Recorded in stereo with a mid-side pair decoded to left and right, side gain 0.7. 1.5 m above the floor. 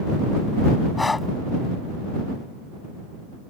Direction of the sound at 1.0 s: 15° left.